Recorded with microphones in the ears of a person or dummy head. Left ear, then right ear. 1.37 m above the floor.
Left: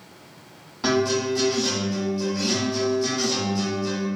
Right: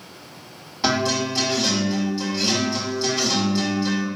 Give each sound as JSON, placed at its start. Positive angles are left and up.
{"t": 0.8, "sound": "a guitar", "side_deg": -20, "distance_m": 1.8}